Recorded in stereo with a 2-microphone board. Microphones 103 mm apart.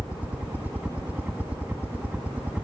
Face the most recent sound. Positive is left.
turn(degrees=-15)  # may be behind; listen again after turning